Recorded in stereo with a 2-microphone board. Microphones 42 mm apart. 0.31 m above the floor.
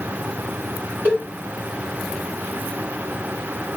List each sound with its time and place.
1.1 s a cowbell: 50° right (ahead or behind), 2 m